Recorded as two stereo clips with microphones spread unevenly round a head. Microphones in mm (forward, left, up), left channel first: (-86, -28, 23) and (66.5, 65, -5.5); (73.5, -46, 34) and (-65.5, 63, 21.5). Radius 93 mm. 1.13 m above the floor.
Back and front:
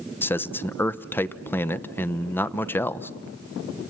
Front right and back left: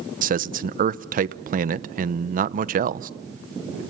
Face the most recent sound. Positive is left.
turn(degrees=130)